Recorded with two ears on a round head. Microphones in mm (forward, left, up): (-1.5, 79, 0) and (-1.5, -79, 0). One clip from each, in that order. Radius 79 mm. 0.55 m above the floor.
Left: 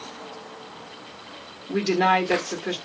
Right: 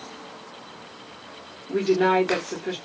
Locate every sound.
1.7 s a woman speaking: 30° left (ahead or behind), 1.1 m